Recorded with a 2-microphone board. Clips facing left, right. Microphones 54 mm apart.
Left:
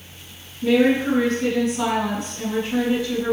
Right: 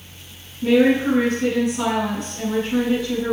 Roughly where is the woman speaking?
Right.